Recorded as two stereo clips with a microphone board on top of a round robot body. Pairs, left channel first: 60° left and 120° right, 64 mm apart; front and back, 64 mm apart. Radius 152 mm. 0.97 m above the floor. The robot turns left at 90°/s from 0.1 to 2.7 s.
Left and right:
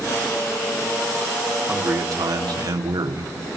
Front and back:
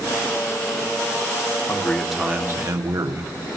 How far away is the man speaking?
About 3 m.